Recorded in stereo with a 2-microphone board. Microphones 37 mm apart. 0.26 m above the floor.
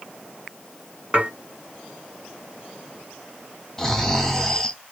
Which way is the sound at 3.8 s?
15° left (ahead or behind).